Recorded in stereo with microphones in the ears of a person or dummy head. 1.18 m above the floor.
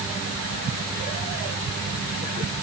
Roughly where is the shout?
I don't hear a shout.